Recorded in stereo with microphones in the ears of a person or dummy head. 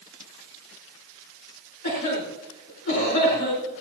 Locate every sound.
1.8 s a cough: 55° left (ahead or behind), 4.5 m